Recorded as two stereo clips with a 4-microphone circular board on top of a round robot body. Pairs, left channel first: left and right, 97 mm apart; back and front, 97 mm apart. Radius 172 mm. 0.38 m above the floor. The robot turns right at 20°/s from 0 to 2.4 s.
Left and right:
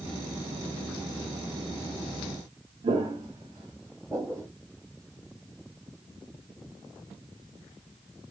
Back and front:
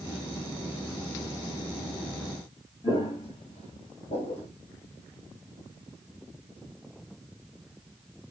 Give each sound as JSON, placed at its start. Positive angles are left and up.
{"t": 2.8, "sound": "footsteps", "azimuth_deg": -125, "distance_m": 0.7}